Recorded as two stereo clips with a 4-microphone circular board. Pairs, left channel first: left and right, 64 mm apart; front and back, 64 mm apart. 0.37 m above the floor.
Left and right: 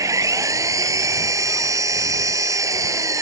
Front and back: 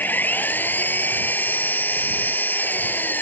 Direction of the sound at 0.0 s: 60° right.